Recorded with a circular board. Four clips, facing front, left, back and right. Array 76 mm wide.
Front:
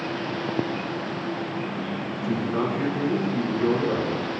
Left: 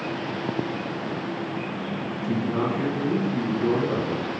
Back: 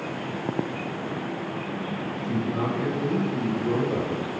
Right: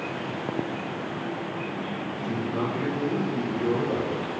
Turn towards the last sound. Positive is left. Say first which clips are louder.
# left 4 dB, front 2 dB
turn(degrees=15)